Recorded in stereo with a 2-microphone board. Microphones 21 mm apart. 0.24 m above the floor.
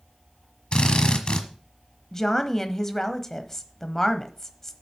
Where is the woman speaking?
20° left (ahead or behind), 1.0 m.